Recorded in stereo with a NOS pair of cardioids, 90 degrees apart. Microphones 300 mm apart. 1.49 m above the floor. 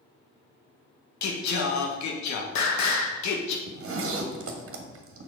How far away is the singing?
About 1.4 m.